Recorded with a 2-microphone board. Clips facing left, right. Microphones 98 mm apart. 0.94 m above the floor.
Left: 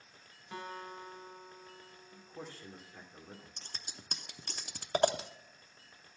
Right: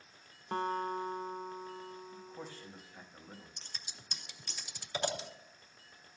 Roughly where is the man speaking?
Left.